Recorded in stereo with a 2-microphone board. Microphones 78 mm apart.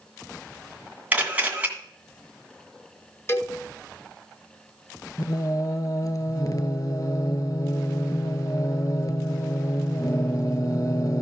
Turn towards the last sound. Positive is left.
turn(degrees=55)  # may be behind; listen again after turning